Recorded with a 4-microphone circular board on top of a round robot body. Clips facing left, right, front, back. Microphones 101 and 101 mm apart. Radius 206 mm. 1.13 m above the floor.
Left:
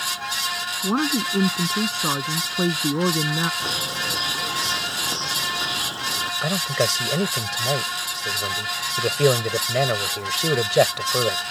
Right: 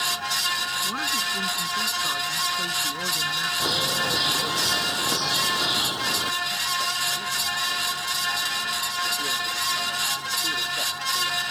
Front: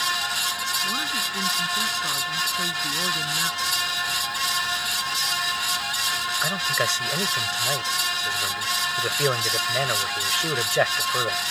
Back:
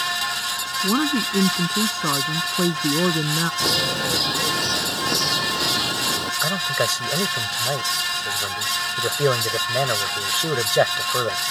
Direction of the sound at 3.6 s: 165° right.